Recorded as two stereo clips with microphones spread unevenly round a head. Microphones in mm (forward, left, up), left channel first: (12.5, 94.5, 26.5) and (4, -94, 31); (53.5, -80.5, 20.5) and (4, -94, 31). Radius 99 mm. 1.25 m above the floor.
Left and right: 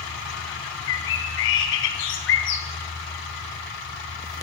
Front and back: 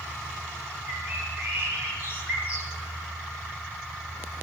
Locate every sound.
0.9 s a bird: 115° left, 4 m